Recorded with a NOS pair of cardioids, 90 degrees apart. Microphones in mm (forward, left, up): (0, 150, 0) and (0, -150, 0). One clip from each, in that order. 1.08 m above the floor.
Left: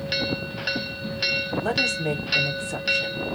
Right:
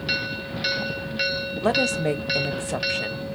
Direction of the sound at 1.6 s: 40° right.